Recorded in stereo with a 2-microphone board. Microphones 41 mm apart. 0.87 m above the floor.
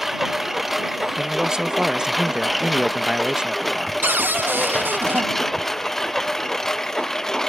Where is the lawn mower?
5° right (ahead or behind); by 7.5 s 10° left (ahead or behind).